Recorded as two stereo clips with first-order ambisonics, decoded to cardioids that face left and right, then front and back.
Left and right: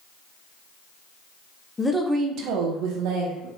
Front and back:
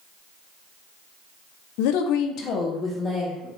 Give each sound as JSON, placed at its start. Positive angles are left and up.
{"t": 1.8, "sound": "a woman speaking", "azimuth_deg": 15, "distance_m": 0.6}